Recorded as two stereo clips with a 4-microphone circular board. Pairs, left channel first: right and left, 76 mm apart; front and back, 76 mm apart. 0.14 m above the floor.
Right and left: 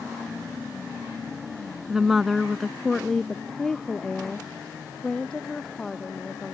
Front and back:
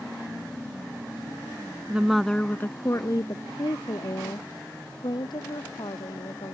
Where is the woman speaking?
160° left; by 6.5 s 10° right.